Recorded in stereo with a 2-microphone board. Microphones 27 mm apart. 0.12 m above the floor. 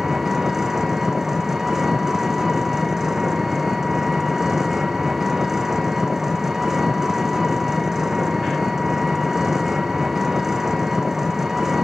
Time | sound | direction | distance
0.0 | an engine running | 15° right (ahead or behind) | 1.7 m